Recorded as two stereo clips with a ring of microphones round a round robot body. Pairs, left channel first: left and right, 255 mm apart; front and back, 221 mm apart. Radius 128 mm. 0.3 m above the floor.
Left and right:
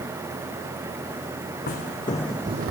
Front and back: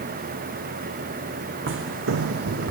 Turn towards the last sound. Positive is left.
turn(degrees=-135)